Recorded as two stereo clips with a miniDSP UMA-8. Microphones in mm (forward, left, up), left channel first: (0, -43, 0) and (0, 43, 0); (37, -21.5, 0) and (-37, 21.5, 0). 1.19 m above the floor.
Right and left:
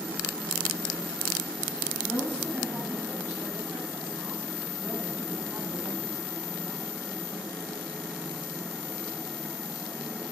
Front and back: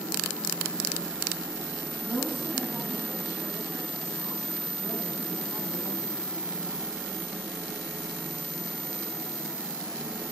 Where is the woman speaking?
150° left, 8 m.